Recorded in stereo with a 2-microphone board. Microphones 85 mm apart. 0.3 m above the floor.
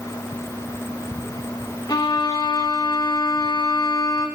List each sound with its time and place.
1.9 s a violin: 55° left (ahead or behind), 0.9 m